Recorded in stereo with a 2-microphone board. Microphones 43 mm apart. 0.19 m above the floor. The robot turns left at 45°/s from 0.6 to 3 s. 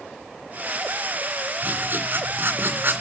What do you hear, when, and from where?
1.6 s writing: 55° right, 2.5 m; by 3.0 s 115° right, 2.5 m